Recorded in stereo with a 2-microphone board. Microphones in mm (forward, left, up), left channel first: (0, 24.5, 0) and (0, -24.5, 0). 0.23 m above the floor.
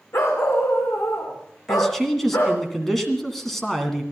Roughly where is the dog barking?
Left.